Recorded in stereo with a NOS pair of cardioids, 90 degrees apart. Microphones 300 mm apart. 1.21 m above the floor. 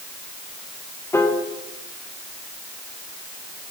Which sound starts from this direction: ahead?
A piano, at 1.1 s.